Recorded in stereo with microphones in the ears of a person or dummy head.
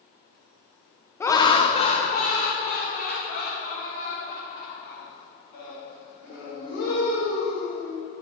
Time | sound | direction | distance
1.2 | laughter | 10° left (ahead or behind) | 0.7 m